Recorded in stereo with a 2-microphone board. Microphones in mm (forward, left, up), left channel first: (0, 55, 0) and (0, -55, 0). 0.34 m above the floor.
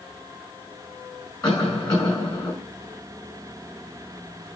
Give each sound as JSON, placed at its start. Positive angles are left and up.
{"t": 1.4, "sound": "a cough", "side_deg": 35, "distance_m": 4.0}